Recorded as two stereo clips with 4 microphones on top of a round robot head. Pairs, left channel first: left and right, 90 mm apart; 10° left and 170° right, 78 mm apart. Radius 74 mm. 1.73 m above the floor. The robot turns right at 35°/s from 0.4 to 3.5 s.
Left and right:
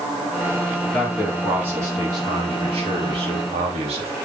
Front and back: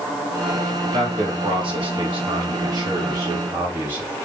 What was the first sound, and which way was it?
A man speaking, 175° left.